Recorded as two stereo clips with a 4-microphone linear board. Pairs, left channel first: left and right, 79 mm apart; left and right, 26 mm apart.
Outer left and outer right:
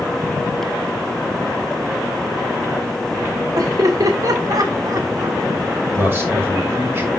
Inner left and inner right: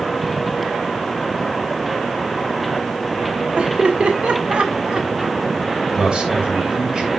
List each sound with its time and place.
3.5 s laughter: 50° right (ahead or behind), 1.2 m
5.9 s a man speaking: 30° right (ahead or behind), 3.5 m